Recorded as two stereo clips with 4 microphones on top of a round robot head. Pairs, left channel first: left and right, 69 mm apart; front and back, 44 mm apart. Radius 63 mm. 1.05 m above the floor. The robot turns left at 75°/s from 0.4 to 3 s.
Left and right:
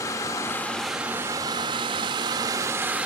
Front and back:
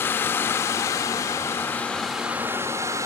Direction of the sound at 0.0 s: 35° left.